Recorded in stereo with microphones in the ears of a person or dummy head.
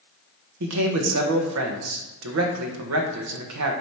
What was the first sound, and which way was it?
A man speaking, 70° right (ahead or behind).